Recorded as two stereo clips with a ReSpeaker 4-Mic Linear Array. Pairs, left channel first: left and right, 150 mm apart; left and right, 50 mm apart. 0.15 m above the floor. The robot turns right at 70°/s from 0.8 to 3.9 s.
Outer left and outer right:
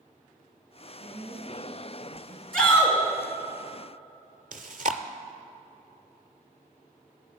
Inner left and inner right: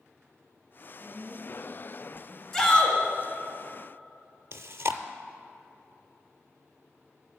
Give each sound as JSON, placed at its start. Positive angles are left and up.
{"t": 1.0, "sound": "a woman speaking", "azimuth_deg": -115, "distance_m": 3.0}
{"t": 2.5, "sound": "a shout", "azimuth_deg": 10, "distance_m": 2.0}
{"t": 4.5, "sound": "chewing", "side_deg": -65, "distance_m": 0.5}